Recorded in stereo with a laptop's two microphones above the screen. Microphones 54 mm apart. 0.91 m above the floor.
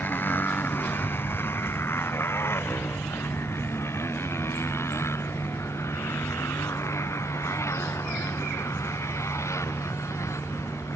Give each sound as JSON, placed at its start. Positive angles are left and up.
{"t": 0.0, "sound": "a motorcycle", "side_deg": 35}